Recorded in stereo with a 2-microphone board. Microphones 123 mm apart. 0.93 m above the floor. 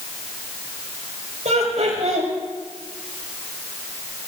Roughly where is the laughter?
Right.